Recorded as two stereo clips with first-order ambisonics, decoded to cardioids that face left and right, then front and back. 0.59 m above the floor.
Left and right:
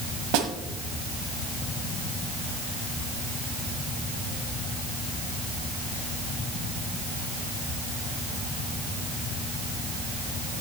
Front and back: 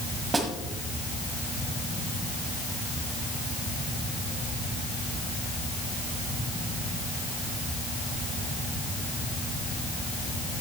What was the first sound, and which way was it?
A snare drum, 105° right.